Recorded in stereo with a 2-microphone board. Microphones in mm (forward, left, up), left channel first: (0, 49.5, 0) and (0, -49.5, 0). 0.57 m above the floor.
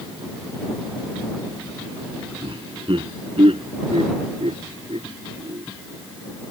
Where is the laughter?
60° right (ahead or behind); by 5.6 s 85° right.